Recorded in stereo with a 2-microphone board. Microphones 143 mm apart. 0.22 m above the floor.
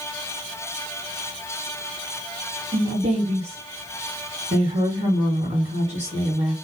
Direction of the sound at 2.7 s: 50° right (ahead or behind).